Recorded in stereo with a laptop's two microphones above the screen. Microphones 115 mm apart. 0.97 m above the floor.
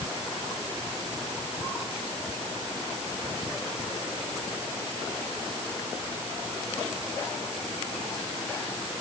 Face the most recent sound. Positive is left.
No sound to turn to.